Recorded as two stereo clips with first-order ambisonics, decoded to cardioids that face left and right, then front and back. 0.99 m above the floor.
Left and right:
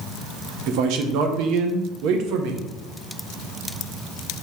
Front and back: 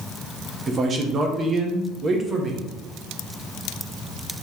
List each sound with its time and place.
0.7 s a man speaking: 115° right, 0.8 m